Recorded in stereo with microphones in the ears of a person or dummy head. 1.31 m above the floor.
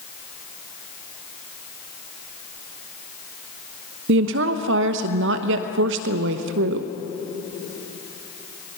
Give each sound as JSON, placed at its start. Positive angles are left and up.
{"t": 4.1, "sound": "a woman speaking", "side_deg": -70, "distance_m": 1.0}